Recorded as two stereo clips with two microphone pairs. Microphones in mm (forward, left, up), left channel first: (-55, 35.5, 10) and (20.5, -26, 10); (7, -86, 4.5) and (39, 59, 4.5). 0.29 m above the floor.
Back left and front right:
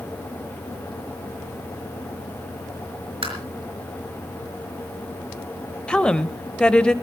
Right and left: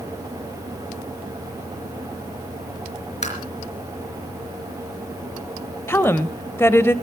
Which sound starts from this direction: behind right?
A woman speaking, at 5.9 s.